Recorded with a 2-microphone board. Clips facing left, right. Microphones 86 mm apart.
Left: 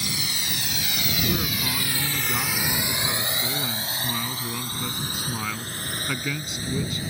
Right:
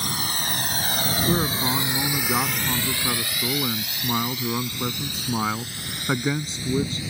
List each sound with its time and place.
0.0 s a drone: 45° right (ahead or behind); by 7.1 s 40° left (ahead or behind)
1.3 s a man speaking: 30° right (ahead or behind)